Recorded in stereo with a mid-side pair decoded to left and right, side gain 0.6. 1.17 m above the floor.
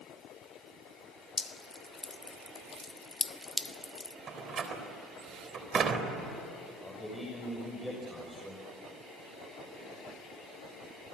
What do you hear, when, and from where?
1.4 s dripping: 15° left, 1.0 m
4.3 s a door slam: 35° right, 3.5 m
6.8 s a man speaking: 5° left, 6.5 m